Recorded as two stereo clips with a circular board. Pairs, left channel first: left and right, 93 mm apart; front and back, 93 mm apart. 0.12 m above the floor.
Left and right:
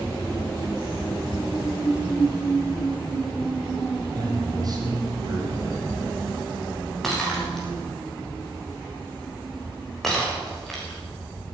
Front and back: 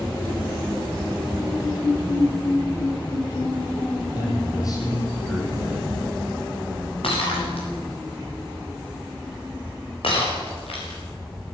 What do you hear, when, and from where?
4.1 s a man speaking: 45° right, 5 m
7.0 s breaking glass: 5° left, 6.5 m